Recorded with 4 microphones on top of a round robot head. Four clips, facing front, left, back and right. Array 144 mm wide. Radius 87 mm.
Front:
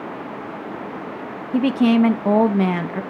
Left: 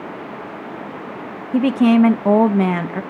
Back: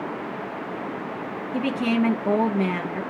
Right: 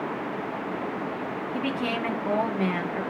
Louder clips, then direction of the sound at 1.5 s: Left 17 dB, front 7 dB; 65° left.